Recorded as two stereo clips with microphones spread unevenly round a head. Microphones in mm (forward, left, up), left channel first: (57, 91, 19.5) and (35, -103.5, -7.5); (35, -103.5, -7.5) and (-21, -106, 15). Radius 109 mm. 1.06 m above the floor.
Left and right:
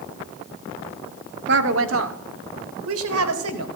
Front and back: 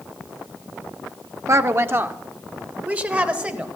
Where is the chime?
I don't hear a chime.